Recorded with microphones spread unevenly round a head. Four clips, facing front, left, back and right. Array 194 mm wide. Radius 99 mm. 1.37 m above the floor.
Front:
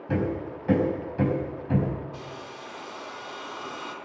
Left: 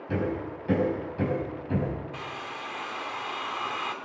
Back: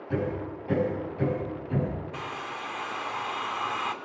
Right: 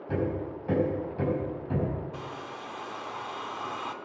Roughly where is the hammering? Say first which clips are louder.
Even, front 2 dB; ahead.